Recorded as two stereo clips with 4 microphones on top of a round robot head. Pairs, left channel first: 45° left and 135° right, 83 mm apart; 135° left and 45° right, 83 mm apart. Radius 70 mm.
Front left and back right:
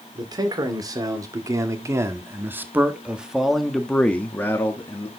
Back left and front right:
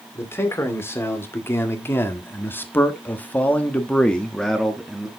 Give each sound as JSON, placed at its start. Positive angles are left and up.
{"t": 0.1, "sound": "a man speaking", "azimuth_deg": -165, "distance_m": 2.5}